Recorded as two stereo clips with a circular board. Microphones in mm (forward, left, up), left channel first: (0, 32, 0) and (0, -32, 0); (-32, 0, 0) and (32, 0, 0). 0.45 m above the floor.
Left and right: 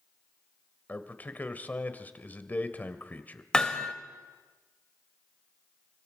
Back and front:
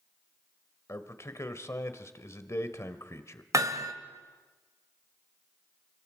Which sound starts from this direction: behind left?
A man speaking, at 0.9 s.